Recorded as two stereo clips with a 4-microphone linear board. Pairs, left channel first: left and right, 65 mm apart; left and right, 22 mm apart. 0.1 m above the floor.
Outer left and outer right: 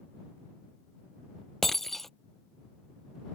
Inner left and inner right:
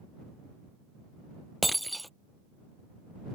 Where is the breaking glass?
5° left (ahead or behind).